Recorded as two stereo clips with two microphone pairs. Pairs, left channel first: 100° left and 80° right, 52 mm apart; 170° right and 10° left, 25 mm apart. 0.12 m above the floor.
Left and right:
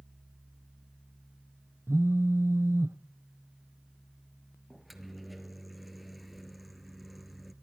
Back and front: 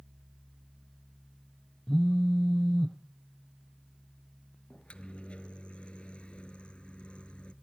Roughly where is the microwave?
Behind.